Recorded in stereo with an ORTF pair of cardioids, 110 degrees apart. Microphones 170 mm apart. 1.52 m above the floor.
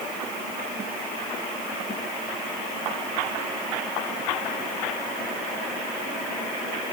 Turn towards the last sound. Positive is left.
No sound to turn to.